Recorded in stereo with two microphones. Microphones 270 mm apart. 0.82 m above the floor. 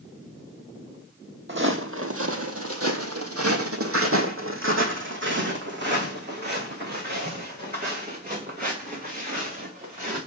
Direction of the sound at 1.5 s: 40° right (ahead or behind).